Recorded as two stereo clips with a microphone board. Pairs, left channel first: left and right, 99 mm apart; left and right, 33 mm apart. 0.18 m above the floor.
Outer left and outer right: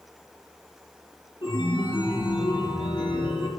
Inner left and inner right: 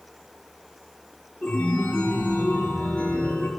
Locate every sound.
1.4 s a chime: 65° left (ahead or behind), 3 m